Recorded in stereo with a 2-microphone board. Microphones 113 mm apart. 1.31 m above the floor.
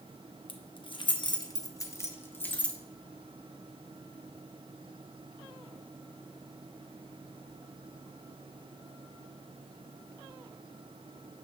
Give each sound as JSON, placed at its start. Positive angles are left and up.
{"t": 0.5, "sound": "keys jangling", "side_deg": 55, "distance_m": 0.9}